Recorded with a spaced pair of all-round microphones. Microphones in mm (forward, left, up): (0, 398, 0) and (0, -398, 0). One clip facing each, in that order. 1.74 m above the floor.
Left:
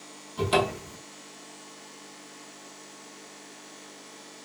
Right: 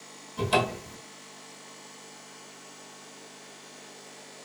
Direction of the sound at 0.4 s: Centre (ahead or behind).